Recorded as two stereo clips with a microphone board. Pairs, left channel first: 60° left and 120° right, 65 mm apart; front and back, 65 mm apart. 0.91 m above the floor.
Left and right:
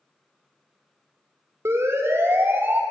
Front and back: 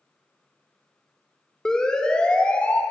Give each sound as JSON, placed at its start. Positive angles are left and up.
{"t": 1.6, "sound": "a siren", "azimuth_deg": -80, "distance_m": 4.0}